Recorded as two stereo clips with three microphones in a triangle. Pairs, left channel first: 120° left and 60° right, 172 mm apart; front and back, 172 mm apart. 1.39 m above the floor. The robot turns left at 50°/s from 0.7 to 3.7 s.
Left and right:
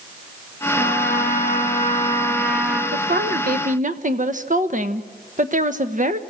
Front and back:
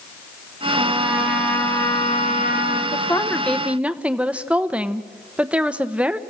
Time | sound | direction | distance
0.8 | a trumpet | 120° left | 2.5 m
2.9 | a woman speaking | 55° right | 0.9 m